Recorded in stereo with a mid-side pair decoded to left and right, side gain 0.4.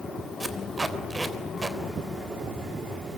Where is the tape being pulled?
25° right, 3.5 m.